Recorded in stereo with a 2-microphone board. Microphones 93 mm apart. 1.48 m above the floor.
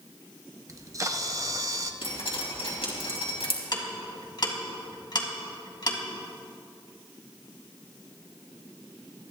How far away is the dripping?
About 3 m.